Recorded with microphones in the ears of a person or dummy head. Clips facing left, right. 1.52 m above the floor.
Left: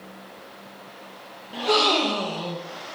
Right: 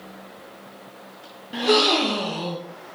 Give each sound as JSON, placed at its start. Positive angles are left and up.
{"t": 1.5, "sound": "a gasp", "side_deg": -15, "distance_m": 0.8}